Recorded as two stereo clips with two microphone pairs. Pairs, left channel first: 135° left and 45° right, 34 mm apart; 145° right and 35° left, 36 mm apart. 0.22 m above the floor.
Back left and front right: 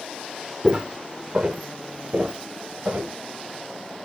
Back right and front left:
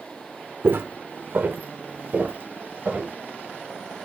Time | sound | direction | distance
0.6 | footsteps | 20° left | 0.8 m